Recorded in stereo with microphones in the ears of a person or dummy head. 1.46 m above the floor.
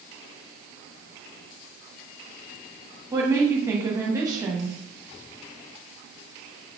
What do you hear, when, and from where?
3.1 s a woman speaking: 15° right (ahead or behind), 1.0 m